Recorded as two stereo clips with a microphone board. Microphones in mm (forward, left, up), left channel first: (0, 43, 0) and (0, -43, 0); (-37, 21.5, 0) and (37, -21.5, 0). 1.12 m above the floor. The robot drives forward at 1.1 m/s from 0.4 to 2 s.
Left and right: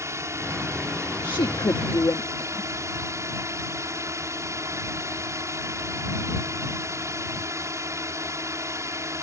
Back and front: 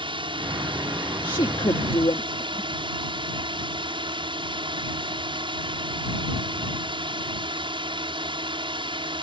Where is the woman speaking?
115° left; by 2.7 s 140° left.